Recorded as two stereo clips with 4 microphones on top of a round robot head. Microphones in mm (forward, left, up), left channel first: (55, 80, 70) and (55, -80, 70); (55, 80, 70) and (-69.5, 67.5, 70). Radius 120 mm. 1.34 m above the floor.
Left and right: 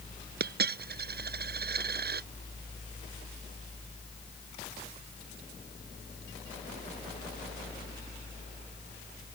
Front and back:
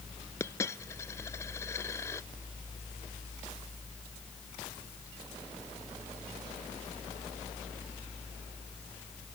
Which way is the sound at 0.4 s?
70° right.